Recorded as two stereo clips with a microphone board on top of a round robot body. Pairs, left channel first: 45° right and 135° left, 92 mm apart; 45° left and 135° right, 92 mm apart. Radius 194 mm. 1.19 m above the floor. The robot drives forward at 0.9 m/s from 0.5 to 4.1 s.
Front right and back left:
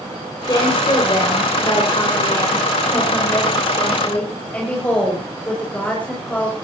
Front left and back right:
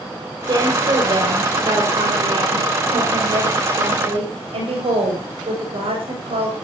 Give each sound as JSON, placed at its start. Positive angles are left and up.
{"t": 0.5, "sound": "a woman speaking", "azimuth_deg": -90, "distance_m": 6.5}